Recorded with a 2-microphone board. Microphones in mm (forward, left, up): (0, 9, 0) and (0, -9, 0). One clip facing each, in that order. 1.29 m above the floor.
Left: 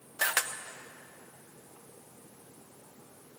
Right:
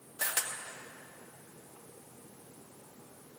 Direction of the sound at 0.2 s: 85° left.